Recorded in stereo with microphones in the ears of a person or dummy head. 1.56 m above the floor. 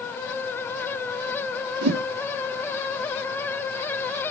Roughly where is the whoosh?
Right.